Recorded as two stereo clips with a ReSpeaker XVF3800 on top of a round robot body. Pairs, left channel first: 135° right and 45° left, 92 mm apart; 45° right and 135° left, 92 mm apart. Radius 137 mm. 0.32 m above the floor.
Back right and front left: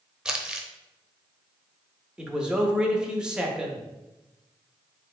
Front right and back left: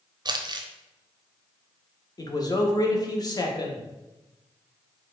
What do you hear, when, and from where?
0.2 s crumpling: 125° left, 0.7 m
2.2 s a man speaking: 35° right, 1.1 m